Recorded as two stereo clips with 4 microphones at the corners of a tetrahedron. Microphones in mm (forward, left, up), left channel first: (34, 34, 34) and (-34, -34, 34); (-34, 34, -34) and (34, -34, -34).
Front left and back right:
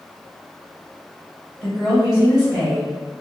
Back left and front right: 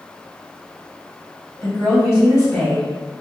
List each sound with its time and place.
1.6 s a woman speaking: 145° left, 1.5 m